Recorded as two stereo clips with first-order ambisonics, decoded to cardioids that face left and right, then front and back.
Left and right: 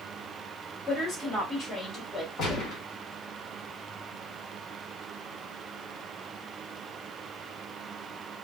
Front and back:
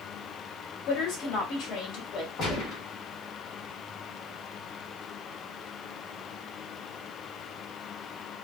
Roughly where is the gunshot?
Ahead left.